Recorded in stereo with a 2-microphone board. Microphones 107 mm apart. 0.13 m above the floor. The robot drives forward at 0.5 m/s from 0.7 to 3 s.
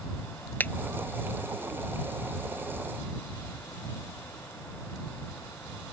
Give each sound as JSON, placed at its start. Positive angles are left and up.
{"t": 0.6, "sound": "a finger snap", "side_deg": 20}